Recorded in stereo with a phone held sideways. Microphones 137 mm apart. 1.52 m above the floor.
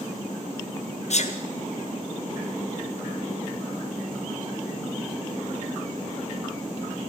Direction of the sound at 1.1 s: 55° left (ahead or behind).